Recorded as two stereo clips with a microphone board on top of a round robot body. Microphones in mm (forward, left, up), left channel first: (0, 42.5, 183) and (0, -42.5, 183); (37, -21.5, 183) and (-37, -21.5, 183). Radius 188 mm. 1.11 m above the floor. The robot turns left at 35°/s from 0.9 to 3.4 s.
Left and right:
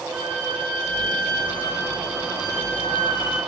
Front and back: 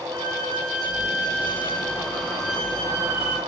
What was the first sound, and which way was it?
A violin, 165° right.